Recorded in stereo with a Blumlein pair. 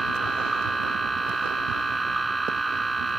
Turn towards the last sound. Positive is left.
turn(degrees=-10)